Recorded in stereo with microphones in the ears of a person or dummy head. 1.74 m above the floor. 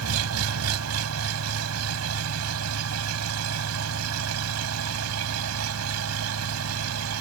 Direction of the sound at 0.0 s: 85° right.